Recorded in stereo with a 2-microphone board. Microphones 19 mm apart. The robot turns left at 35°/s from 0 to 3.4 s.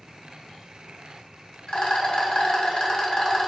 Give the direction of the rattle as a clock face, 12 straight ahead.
9 o'clock.